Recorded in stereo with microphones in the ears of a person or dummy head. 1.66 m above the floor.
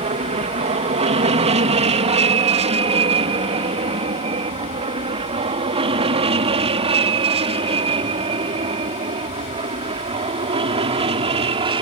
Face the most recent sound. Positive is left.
turn(degrees=-30)  # may be behind; listen again after turning